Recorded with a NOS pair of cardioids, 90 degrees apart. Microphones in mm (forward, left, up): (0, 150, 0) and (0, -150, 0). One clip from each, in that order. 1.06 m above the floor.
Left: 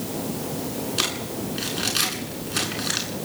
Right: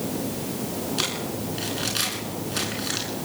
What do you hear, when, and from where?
1.0 s crumpling: 25° left, 9 m